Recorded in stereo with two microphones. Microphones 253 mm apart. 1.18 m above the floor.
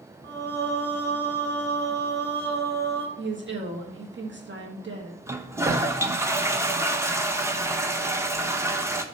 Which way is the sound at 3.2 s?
45° right (ahead or behind).